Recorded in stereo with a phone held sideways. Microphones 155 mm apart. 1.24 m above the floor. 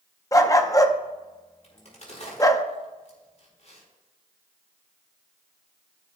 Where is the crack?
50° left (ahead or behind), 4 m.